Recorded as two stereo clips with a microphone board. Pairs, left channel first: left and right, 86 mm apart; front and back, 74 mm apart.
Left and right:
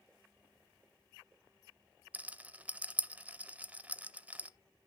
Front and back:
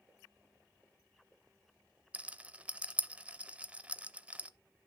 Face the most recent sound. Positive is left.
turn(degrees=-135)